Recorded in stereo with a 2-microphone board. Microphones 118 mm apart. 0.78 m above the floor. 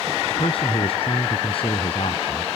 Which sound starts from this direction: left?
A man speaking, at 0.3 s.